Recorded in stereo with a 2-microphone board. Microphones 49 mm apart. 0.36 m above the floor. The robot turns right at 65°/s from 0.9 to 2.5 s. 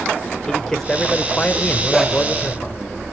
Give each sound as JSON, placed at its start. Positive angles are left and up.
{"t": 0.5, "sound": "a man speaking", "azimuth_deg": 20, "distance_m": 0.9}
{"t": 1.9, "sound": "a dog barking", "side_deg": -5, "distance_m": 2.5}